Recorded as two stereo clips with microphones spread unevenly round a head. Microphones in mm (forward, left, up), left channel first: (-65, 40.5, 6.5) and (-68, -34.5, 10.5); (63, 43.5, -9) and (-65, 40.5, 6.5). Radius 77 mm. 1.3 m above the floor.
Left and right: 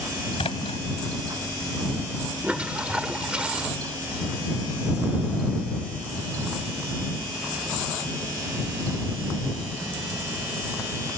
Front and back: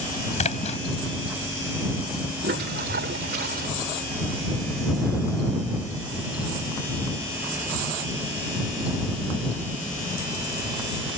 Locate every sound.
0.4 s a splash: 35° left
2.4 s a toilet flushing: 165° right